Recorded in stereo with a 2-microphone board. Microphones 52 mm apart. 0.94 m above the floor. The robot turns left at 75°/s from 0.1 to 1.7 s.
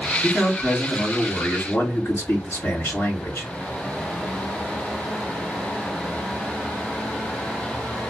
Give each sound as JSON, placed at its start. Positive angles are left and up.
{"t": 0.2, "sound": "a man speaking", "azimuth_deg": -175, "distance_m": 1.3}